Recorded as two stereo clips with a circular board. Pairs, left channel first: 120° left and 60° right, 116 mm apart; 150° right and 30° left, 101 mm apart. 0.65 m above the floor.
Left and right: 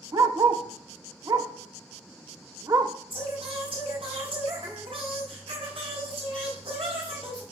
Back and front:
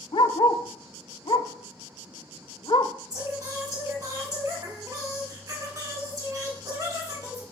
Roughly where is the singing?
Ahead.